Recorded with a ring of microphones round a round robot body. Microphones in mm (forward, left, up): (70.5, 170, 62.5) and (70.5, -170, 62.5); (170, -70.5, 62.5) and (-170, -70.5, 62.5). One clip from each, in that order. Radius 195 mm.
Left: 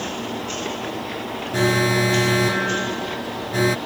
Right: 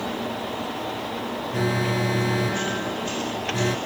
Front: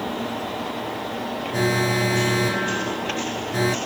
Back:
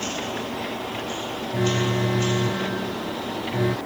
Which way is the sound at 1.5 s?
45° left.